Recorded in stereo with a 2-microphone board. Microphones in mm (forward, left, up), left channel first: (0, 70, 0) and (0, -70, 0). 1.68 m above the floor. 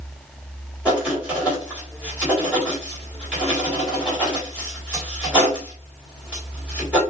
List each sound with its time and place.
0.8 s writing: 10° right (ahead or behind), 3.5 m